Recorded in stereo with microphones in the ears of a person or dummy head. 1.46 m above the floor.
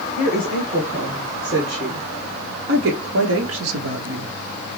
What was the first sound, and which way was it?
A woman speaking, 30° right (ahead or behind).